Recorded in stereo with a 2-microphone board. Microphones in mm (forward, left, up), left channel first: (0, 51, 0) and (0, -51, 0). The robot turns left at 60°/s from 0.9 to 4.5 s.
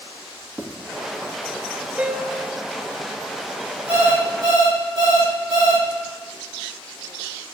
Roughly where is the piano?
Behind.